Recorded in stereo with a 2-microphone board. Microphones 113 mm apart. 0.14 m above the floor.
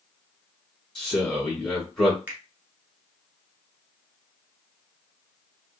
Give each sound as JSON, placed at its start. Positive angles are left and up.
{"t": 0.9, "sound": "a man speaking", "side_deg": 0, "distance_m": 1.7}
{"t": 2.3, "sound": "a finger snap", "side_deg": -15, "distance_m": 1.2}